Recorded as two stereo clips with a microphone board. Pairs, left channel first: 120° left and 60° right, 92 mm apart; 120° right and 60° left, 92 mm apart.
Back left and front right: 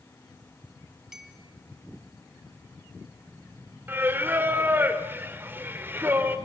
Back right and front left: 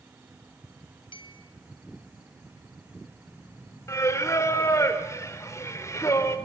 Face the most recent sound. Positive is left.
turn(degrees=-105)